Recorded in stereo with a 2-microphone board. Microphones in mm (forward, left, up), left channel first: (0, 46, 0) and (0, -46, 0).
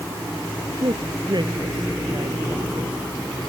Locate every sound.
0.8 s a man speaking: 55° right (ahead or behind); by 3.0 s 60° right (ahead or behind)